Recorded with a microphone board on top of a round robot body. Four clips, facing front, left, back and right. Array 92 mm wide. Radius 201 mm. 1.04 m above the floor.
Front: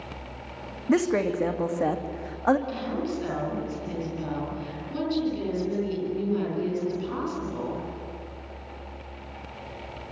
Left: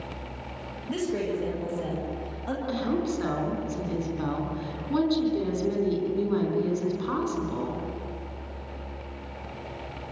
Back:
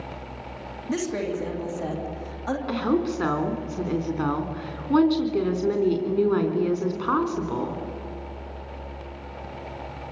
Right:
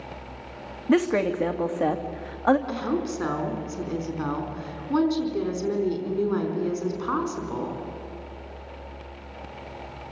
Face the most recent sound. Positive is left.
turn(degrees=-165)